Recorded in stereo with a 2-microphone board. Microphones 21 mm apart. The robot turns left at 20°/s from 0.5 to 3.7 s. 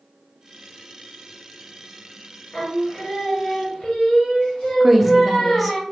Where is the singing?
30° left (ahead or behind), 1.7 m; by 5.8 s 50° left (ahead or behind), 1.7 m.